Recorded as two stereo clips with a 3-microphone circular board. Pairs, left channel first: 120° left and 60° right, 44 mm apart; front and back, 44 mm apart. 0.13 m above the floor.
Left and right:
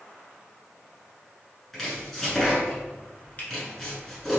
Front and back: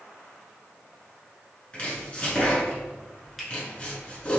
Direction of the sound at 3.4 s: 90° left.